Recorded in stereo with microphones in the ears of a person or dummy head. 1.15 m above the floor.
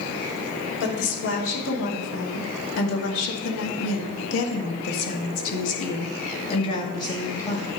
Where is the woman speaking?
65° left (ahead or behind), 3 m; by 7.7 s 15° left (ahead or behind), 2 m.